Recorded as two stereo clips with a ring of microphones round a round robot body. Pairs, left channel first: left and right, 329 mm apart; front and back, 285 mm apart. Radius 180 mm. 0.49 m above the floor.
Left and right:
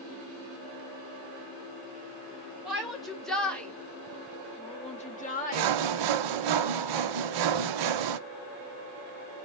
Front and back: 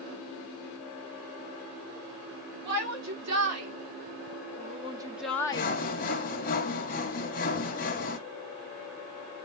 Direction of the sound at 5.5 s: 65° right.